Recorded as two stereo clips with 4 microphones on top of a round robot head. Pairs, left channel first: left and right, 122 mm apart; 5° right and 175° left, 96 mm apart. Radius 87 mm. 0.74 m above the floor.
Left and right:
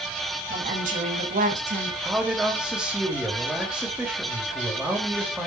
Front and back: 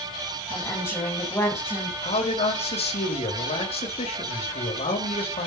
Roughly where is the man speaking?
Ahead.